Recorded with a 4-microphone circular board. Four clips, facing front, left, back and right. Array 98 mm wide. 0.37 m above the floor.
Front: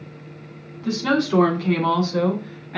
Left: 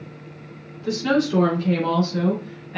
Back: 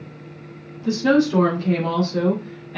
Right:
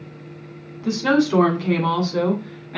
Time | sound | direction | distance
0.8 | a woman speaking | 65° right | 2.5 m